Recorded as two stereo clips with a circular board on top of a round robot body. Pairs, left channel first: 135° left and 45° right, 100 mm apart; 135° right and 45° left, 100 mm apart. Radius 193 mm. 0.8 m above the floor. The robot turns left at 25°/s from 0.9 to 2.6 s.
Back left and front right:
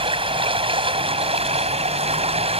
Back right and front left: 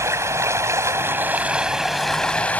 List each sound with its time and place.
0.0 s running water: 20° right; by 2.6 s 60° right